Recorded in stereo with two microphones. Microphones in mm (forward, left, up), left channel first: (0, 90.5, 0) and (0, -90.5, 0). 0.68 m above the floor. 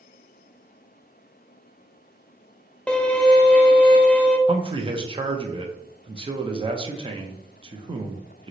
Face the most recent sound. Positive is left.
turn(degrees=-30)  # may be behind; listen again after turning